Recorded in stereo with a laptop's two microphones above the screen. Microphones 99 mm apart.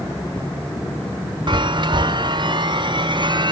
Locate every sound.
1.5 s a chime: 50° right (ahead or behind), 0.5 m